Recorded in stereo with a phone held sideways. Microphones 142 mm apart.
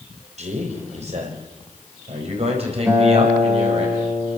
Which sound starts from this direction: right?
A man speaking, at 0.4 s.